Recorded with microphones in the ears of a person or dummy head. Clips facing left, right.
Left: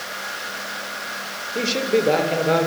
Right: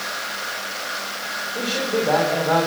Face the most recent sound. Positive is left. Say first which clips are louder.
# left 3 dB
turn(degrees=45)  # may be behind; listen again after turning